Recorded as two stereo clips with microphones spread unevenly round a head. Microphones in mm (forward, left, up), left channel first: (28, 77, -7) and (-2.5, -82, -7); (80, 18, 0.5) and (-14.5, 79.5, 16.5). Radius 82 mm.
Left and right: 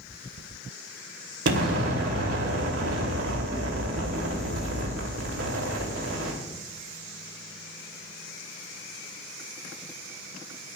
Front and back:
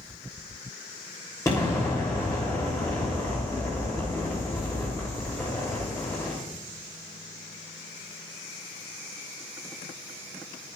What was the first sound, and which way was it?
An explosion, 110° right.